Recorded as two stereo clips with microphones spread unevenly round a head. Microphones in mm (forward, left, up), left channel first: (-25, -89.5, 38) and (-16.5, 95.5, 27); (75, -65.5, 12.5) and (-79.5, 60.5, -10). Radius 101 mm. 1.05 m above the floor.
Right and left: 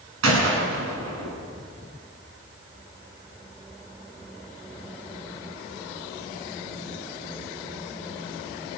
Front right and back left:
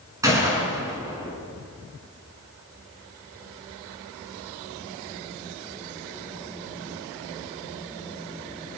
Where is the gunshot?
65° left, 5.5 m.